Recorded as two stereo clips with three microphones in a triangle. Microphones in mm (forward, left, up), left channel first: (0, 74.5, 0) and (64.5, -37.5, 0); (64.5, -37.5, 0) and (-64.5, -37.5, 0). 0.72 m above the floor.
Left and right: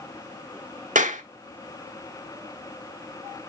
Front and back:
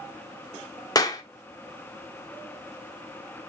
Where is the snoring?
No snoring in this recording.